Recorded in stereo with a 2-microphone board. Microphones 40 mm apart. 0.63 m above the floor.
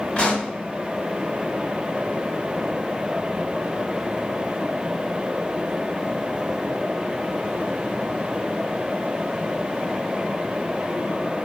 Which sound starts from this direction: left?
A pop, at 0.2 s.